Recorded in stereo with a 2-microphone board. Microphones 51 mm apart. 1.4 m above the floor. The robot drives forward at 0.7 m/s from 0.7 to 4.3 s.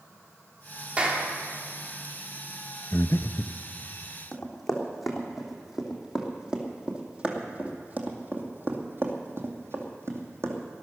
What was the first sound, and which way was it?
A clap, 25° right (ahead or behind).